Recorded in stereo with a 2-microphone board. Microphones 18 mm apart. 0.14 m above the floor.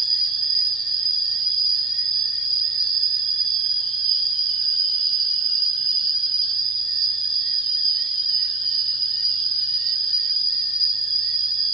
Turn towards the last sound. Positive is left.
turn(degrees=20)  # may be behind; listen again after turning